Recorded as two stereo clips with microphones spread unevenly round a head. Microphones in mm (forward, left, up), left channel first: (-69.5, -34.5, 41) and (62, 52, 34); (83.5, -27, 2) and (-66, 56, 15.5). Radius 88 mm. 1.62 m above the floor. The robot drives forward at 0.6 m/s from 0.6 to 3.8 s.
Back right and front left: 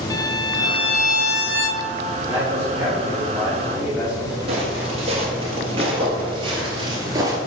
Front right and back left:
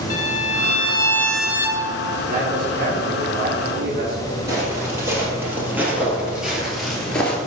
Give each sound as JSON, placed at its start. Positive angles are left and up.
{"t": 0.1, "sound": "a violin", "azimuth_deg": -80, "distance_m": 0.6}
{"t": 2.2, "sound": "a man speaking", "azimuth_deg": 105, "distance_m": 3.5}
{"t": 4.5, "sound": "footsteps", "azimuth_deg": 85, "distance_m": 2.5}